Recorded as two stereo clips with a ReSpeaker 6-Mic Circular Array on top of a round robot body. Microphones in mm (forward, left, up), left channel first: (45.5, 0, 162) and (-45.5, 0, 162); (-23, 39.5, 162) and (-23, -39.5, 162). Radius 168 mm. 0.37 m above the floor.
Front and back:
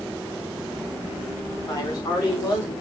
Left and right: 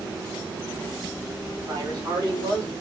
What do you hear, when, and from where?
1.7 s a man speaking: 55° right, 2.5 m; by 2.7 s 50° right, 4 m